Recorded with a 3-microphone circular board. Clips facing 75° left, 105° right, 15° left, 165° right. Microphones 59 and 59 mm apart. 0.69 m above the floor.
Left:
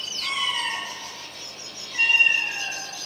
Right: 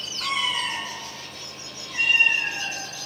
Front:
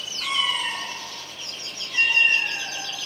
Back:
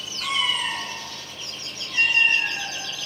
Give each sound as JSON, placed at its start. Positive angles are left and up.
{"t": 0.2, "sound": "a cat meowing", "azimuth_deg": -80, "distance_m": 2.5}